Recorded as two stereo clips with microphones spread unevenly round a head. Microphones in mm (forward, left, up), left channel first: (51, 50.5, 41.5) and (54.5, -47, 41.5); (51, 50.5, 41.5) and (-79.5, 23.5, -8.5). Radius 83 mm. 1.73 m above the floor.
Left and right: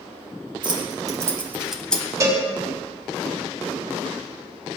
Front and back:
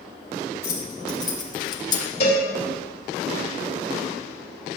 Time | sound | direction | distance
0.6 | keys jangling | 50° right | 1.5 m
2.2 | a cowbell | 35° right | 4 m